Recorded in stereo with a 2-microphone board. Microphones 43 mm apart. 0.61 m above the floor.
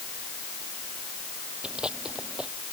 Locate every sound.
1.6 s chewing: 25° right (ahead or behind)